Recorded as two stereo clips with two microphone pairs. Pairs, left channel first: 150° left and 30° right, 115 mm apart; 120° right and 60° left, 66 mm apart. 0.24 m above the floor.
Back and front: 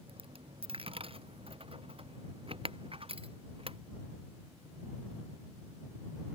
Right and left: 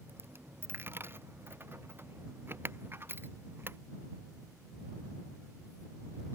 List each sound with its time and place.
0.1 s a dropped coin: 5° left